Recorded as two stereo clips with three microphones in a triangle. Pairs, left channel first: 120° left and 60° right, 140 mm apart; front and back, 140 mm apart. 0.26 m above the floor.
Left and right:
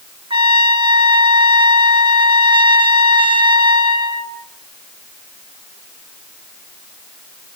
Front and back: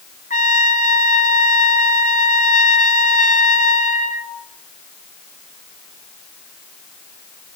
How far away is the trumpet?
About 2.5 m.